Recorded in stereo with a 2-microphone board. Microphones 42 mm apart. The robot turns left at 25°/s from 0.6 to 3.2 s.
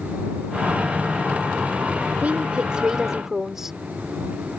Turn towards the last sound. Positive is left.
turn(degrees=-10)  # may be behind; listen again after turning